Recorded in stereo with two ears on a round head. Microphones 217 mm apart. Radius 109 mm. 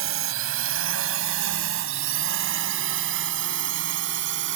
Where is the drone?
60° right (ahead or behind); by 4.6 s 50° right (ahead or behind).